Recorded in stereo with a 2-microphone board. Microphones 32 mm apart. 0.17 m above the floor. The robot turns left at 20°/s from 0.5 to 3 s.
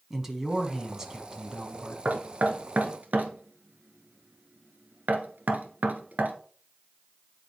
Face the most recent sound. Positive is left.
turn(degrees=-65)  # may be behind; listen again after turning